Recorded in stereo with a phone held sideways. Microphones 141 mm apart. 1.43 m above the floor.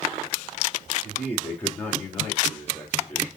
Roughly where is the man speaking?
Centre.